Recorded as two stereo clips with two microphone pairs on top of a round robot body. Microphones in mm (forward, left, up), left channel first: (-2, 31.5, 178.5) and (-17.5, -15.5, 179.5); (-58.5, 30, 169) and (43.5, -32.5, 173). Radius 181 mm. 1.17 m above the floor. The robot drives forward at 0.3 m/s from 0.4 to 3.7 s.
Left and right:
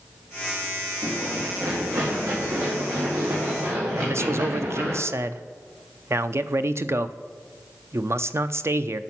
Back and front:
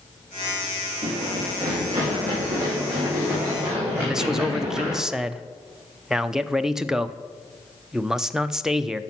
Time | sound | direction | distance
1.0 | running footsteps | 75° right | 3 m
4.0 | a man speaking | 115° right | 0.6 m